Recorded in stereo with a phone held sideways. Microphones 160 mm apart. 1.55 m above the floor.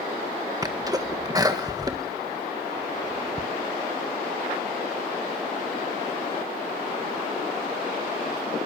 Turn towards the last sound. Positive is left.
turn(degrees=-25)  # may be behind; listen again after turning